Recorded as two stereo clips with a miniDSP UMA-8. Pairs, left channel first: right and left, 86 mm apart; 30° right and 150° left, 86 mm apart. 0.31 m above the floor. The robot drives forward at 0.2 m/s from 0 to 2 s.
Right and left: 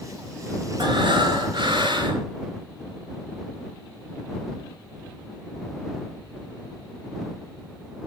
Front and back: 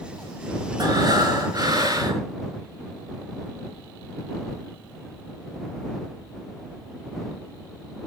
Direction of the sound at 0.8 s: 110° left.